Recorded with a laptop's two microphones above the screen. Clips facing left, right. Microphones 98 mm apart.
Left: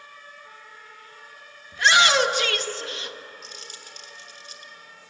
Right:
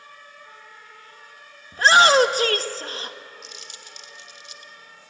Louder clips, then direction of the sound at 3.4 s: Left 1 dB; 45° left (ahead or behind).